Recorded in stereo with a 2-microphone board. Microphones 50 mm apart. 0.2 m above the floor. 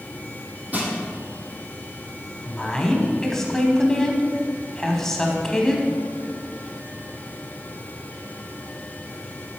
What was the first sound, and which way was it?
Crushing, 30° right (ahead or behind).